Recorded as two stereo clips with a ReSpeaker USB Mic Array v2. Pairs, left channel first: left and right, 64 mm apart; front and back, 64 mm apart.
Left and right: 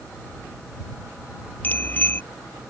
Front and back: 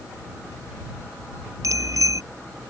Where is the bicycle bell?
150° left.